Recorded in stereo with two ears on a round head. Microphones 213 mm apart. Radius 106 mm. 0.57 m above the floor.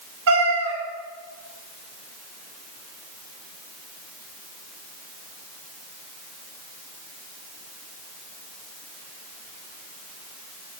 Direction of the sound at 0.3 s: 75° right (ahead or behind).